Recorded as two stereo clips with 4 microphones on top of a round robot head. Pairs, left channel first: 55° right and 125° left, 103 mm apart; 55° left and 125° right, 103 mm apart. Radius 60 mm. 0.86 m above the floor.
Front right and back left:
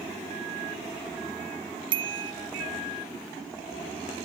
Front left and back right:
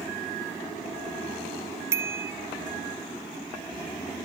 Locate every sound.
1.9 s a bicycle bell: 170° left